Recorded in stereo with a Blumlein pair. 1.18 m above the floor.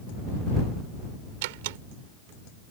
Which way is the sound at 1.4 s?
50° right.